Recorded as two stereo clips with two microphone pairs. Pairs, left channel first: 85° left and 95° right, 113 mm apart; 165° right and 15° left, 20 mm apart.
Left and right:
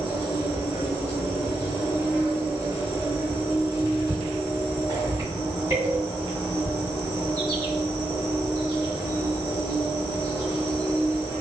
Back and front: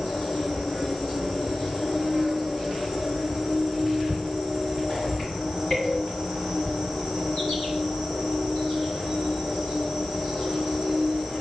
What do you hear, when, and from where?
0.0 s an insect: 150° right, 1.8 m